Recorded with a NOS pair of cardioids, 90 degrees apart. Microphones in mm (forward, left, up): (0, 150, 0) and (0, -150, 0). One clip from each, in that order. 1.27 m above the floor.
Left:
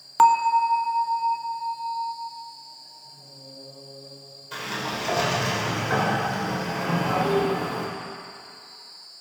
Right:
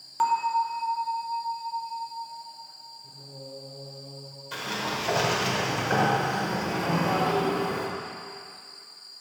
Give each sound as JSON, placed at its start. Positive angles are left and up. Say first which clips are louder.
{"t": 0.2, "sound": "a bell", "louder": "left 7 dB", "azimuth_deg": 45, "distance_m": 0.6}
{"t": 3.0, "sound": "singing", "louder": "right 1 dB", "azimuth_deg": -65, "distance_m": 3.0}
{"t": 4.5, "sound": "a sliding door", "louder": "left 1 dB", "azimuth_deg": -10, "distance_m": 3.0}
{"t": 7.1, "sound": "a toilet flushing", "louder": "left 3 dB", "azimuth_deg": 50, "distance_m": 2.0}